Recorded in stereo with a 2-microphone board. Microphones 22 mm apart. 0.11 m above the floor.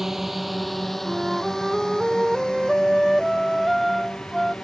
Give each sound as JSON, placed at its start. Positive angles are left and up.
{"t": 0.0, "sound": "a drone", "side_deg": -20}
{"t": 1.1, "sound": "a flute", "side_deg": -5}